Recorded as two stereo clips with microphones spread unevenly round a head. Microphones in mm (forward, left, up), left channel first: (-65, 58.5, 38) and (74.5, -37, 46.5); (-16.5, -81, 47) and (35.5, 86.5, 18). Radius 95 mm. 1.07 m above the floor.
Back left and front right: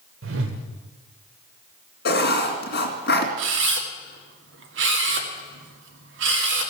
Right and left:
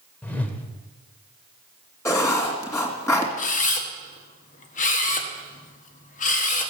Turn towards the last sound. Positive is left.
turn(degrees=-55)